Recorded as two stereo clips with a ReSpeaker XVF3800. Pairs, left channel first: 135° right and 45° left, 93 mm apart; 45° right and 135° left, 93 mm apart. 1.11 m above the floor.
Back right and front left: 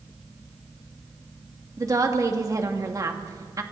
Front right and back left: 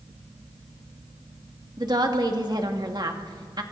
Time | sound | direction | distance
1.8 | a woman speaking | 95° left | 2 m